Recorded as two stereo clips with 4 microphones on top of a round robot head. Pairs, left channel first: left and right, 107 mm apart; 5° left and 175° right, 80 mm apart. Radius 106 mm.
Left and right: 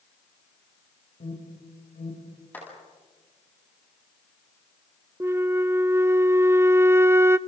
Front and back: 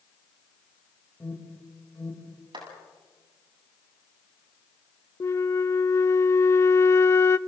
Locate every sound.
1.2 s an alarm: 80° left, 6.5 m
2.5 s a clap: 165° left, 8.5 m
5.2 s a flute: 30° right, 0.6 m